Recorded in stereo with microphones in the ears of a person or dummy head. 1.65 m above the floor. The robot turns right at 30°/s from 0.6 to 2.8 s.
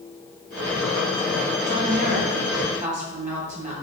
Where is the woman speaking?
80° right, 1.9 m; by 3.7 s 45° right, 1.9 m.